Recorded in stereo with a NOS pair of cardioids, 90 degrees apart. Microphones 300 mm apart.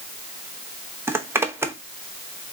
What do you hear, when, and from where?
1.1 s a zipper: 10° right, 0.7 m